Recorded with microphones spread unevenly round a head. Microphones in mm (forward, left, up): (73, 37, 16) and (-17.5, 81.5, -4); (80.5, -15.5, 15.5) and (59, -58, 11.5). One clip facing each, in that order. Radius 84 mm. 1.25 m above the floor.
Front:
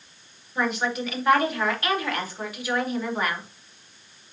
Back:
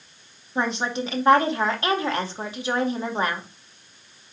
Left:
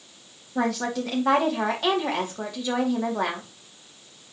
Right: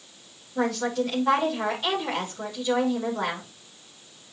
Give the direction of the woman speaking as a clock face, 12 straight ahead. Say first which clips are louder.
Back 1 dB, even; 9 o'clock.